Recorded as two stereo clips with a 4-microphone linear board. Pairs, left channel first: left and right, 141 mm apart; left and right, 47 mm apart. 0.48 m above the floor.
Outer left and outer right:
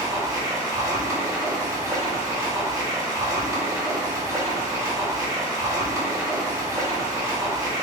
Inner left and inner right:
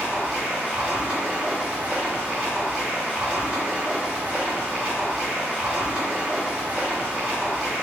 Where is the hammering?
No hammering in this recording.